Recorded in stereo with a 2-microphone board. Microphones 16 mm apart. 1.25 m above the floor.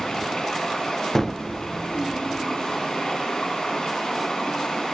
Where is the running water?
60° left (ahead or behind), 2 m.